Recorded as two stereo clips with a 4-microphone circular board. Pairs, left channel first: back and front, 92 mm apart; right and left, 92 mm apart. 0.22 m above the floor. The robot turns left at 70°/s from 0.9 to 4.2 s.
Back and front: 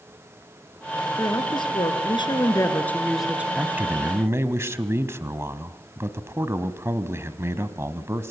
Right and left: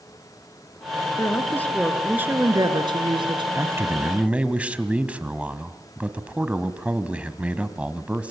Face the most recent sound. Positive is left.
turn(degrees=25)